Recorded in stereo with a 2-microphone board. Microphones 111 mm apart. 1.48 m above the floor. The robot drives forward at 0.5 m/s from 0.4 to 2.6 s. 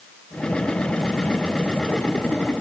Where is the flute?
I don't hear a flute.